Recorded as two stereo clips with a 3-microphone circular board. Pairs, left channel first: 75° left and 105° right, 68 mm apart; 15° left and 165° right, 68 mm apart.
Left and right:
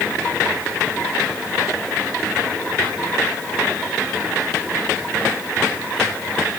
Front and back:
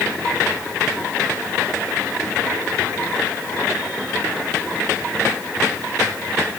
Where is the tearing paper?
I don't hear tearing paper.